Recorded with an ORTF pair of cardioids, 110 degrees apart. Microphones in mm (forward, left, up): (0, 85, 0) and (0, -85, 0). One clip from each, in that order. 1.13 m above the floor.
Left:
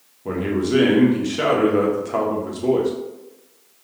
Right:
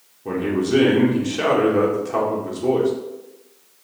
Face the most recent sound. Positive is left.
turn(degrees=10)